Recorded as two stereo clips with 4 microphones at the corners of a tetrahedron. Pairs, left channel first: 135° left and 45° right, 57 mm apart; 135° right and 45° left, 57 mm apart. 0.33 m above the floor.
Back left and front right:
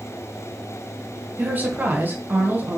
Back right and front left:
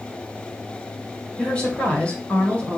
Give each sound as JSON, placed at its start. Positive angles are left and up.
{"t": 1.4, "sound": "a woman speaking", "azimuth_deg": -75, "distance_m": 1.9}